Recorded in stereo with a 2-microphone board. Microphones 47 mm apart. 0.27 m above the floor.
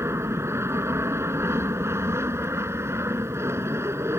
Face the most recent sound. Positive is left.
turn(degrees=-60)  # may be behind; listen again after turning